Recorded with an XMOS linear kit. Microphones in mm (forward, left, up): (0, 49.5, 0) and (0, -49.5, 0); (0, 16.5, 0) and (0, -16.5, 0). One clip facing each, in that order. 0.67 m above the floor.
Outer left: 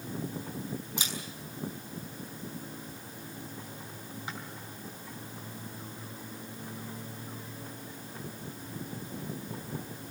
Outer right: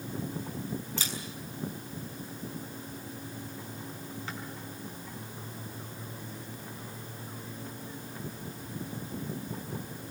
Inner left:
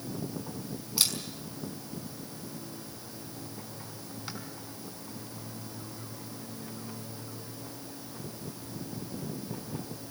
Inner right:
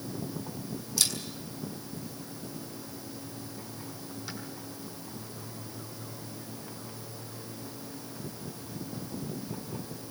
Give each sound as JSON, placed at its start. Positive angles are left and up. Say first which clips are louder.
{"t": 1.0, "sound": "a camera shutter", "louder": "outer right 1 dB, inner left 1 dB", "side_deg": 15, "distance_m": 6.0}